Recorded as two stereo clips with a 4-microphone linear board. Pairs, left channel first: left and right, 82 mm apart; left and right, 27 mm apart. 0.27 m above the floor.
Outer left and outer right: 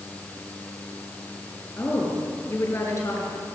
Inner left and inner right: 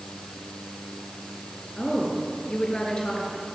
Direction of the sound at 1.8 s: 35° left (ahead or behind).